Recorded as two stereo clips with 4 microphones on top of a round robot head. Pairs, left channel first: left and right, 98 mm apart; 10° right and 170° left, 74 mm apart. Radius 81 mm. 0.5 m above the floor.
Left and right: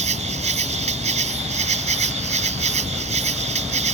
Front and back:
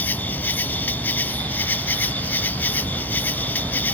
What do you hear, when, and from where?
0.0 s an insect: 85° right